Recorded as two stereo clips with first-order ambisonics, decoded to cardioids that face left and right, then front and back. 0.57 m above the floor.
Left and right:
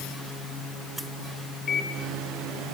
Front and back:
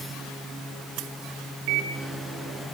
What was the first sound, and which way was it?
A microwave, 155° left.